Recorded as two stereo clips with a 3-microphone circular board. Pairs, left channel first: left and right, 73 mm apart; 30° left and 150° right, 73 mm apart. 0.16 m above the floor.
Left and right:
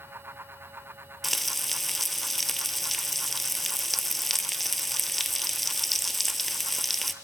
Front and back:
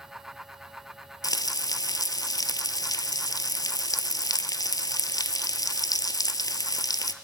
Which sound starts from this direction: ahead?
Frying, at 1.2 s.